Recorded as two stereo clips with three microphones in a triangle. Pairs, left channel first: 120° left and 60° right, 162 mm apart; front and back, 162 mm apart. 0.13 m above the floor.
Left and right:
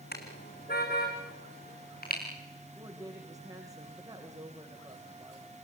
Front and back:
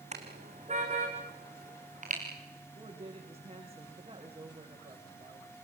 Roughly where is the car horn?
Behind left.